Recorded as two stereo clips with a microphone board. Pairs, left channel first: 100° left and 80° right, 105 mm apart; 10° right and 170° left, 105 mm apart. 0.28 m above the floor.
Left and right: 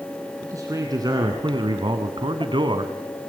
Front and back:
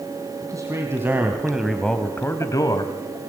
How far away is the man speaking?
About 3 m.